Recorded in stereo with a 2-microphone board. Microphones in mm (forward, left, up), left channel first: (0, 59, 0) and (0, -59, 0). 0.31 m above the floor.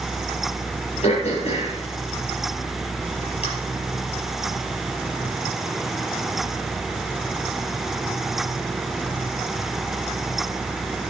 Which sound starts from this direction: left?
Throat clearing, at 1.0 s.